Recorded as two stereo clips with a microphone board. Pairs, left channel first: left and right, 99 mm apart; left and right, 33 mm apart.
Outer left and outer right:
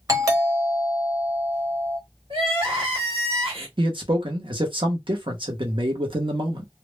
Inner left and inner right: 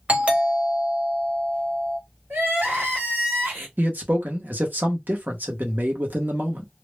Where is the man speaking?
60° right (ahead or behind), 0.8 m.